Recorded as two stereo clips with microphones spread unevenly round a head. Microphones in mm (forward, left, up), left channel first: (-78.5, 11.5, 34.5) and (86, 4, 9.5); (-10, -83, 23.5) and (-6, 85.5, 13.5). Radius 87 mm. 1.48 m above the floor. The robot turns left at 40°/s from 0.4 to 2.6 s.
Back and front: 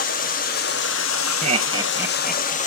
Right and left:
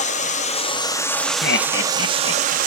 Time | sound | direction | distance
0.0 | running water | 140° right | 0.9 m
1.4 | laughter | 60° right | 0.6 m